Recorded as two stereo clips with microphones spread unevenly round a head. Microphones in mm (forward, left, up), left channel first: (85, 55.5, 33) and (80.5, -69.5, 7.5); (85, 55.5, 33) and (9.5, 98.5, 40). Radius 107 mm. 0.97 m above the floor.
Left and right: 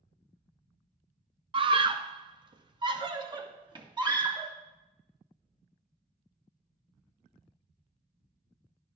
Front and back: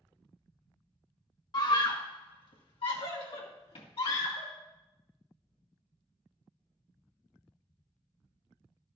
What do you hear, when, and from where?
1.5 s a scream: 60° right, 0.7 m; by 4.5 s 40° right, 2 m